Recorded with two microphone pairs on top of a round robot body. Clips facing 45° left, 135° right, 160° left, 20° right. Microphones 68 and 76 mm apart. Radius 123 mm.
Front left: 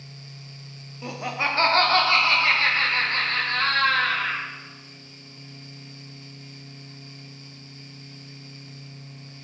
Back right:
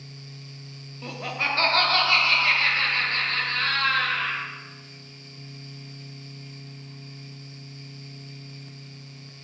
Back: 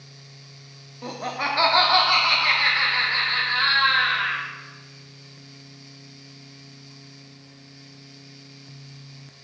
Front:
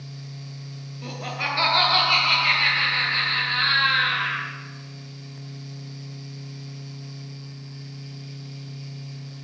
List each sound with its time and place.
1.0 s laughter: 125° left, 1.4 m; by 4.5 s 90° left, 3.5 m